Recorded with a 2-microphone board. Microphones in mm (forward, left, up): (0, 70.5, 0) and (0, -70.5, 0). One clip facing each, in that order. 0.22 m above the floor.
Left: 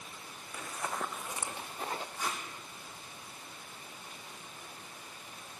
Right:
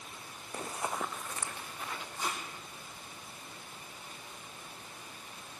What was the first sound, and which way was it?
Running footsteps, 40° right (ahead or behind).